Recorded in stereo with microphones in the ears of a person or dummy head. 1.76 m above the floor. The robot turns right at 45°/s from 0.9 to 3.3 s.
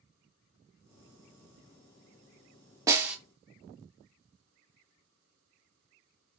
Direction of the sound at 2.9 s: 15° right (ahead or behind).